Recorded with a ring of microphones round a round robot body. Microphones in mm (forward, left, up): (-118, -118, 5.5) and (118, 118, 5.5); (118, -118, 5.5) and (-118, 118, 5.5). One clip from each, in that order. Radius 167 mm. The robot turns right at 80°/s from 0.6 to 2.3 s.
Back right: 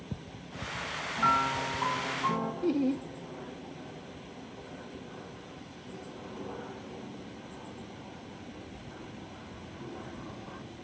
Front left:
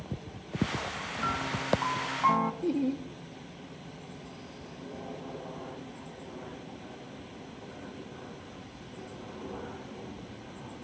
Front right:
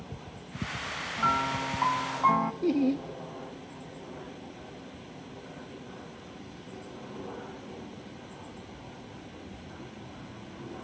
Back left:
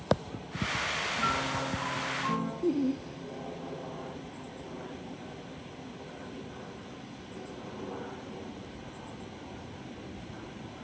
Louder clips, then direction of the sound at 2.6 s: Back right 1 dB, front right 3 dB; 60° right.